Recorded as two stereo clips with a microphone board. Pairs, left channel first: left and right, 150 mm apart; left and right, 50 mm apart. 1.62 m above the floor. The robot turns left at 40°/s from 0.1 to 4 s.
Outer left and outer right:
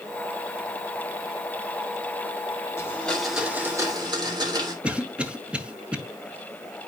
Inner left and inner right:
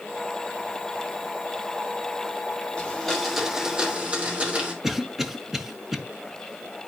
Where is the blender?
20° left, 2.5 m; by 4.7 s 30° right, 2.5 m.